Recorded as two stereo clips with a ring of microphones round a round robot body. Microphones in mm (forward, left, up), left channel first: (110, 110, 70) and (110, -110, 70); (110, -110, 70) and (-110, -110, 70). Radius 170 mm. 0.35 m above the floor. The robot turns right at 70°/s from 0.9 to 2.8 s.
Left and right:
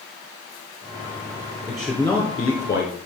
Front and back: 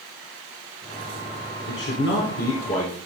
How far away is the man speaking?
About 1.6 m.